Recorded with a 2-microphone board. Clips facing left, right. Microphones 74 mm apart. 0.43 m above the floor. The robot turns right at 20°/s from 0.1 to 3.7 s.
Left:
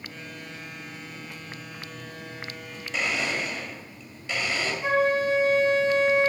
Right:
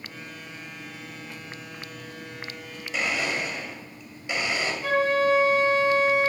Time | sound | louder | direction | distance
2.9 | a blender | right 1 dB | 5° right (ahead or behind) | 1.8 m
4.8 | a flute | right 1 dB | 20° left (ahead or behind) | 1.8 m